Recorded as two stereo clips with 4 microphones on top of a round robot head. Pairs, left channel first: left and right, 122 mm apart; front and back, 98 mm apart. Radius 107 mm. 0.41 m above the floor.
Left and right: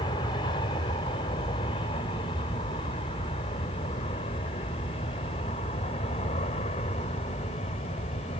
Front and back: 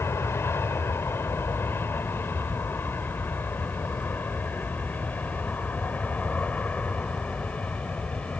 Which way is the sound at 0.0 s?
55° left.